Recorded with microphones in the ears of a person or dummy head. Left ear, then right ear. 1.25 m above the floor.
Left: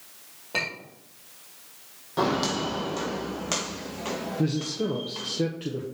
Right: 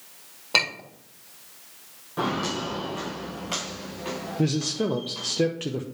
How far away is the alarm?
No alarm in this recording.